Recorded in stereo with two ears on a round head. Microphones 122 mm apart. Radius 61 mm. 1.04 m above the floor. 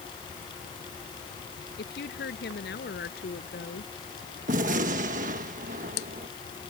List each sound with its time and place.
1.8 s a woman speaking: 85° left
4.5 s a gunshot: 60° right (ahead or behind)